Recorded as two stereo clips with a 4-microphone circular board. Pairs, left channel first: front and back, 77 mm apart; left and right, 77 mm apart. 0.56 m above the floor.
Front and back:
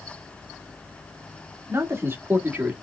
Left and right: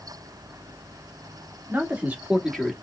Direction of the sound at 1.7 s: 145° right.